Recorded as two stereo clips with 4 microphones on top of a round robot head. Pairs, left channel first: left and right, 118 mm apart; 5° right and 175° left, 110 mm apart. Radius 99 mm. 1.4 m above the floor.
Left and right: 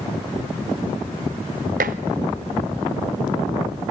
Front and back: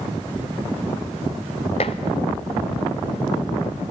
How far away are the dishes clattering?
About 0.6 m.